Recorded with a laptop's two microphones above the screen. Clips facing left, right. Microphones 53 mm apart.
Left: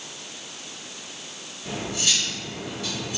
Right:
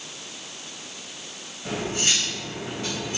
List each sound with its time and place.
1.6 s cutlery clinking: 35° right (ahead or behind), 4 m